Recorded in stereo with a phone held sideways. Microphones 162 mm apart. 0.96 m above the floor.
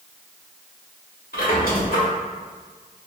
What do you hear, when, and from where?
1.3 s a squeak: 85° left, 1.2 m